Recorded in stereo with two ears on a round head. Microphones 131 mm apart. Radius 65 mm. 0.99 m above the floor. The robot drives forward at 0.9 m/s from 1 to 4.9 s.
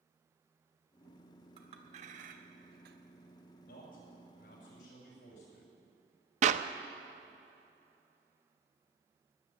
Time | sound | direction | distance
1.6 | a clink | 35° right (ahead or behind) | 1.5 m
3.6 | a man speaking | 70° left (ahead or behind) | 5.5 m
6.4 | a clap | 50° right (ahead or behind) | 0.6 m